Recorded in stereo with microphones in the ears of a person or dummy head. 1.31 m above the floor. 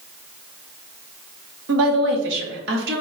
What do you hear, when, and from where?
1.7 s a woman speaking: 65° right (ahead or behind), 1.1 m